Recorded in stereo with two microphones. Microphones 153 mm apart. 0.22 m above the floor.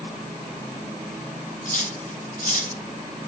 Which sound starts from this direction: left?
Cutlery clinking, at 1.6 s.